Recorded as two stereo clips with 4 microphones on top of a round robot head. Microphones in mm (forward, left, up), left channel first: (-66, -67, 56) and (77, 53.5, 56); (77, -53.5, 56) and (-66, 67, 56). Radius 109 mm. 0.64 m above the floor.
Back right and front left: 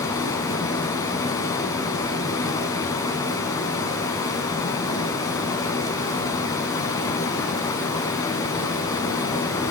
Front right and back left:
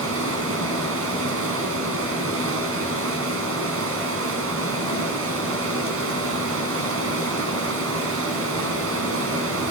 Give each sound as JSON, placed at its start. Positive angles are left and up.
{"t": 0.0, "sound": "running water", "azimuth_deg": 150, "distance_m": 5.5}